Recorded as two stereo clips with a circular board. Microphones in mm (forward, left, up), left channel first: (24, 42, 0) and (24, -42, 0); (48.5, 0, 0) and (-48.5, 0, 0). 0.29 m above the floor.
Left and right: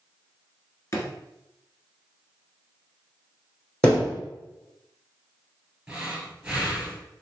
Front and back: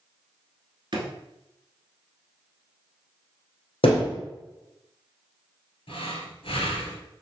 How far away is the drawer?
About 1.0 m.